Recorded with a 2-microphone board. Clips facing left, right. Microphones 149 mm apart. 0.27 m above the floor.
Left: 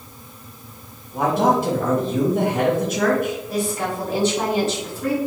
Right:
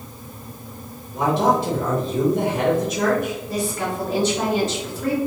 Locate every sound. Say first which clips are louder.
1.1 s a man speaking: left 1 dB; 50° left (ahead or behind), 1.6 m
3.5 s a woman speaking: left 1 dB; 15° left (ahead or behind), 1.9 m